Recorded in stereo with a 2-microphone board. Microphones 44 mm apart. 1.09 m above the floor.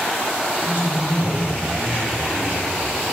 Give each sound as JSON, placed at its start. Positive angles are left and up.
{"t": 0.6, "sound": "a man speaking", "side_deg": -45, "distance_m": 3.0}